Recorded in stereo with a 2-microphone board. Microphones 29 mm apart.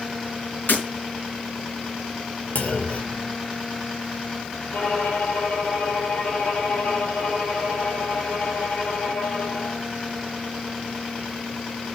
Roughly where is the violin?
Left.